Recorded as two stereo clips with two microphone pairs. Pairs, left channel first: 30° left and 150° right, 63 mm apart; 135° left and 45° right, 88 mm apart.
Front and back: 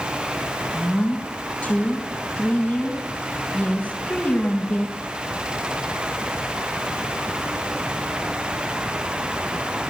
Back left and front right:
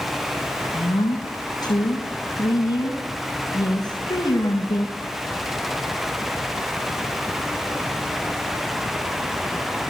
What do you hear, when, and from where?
0.7 s a woman speaking: 110° left, 5 m